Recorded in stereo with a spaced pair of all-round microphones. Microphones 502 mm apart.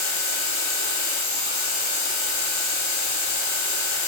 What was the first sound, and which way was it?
A machine running, 65° left (ahead or behind).